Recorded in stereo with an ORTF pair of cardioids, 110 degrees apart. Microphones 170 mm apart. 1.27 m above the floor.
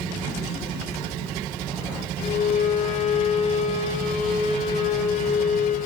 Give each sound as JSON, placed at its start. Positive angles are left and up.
{"t": 2.2, "sound": "a violin", "azimuth_deg": 45, "distance_m": 4.5}